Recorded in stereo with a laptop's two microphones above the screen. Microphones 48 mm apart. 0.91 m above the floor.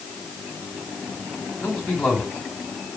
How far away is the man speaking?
About 6.5 m.